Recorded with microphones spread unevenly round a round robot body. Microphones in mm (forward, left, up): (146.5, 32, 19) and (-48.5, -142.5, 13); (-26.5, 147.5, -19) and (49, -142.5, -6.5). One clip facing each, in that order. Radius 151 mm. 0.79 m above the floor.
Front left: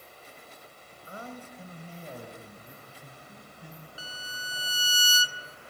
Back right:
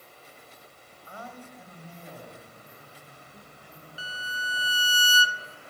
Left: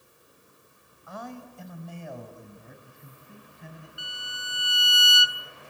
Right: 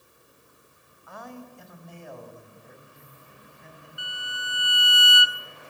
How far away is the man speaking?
About 3.5 m.